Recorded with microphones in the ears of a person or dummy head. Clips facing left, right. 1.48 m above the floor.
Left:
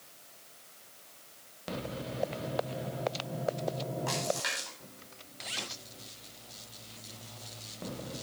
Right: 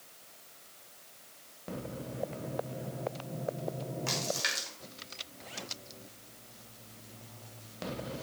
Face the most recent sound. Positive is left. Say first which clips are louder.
# left 3 dB
turn(degrees=-40)  # may be behind; listen again after turning